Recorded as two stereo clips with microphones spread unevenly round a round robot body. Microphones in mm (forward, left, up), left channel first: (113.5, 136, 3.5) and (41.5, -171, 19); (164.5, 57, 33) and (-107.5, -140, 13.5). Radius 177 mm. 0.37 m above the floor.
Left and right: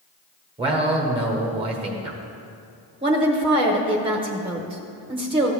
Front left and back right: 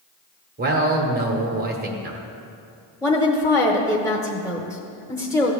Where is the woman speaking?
40° right, 0.9 m.